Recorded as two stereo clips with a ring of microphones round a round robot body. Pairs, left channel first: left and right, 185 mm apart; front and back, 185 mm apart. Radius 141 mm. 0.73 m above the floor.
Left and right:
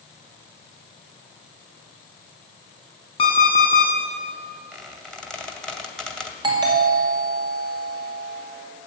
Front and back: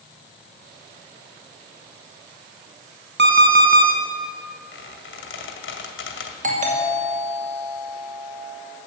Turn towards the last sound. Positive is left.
turn(degrees=-150)